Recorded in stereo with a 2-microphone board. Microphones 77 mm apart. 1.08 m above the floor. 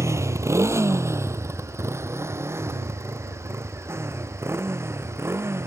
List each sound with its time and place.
0.0 s a motorcycle: 35° right (ahead or behind); by 5.7 s 30° right (ahead or behind)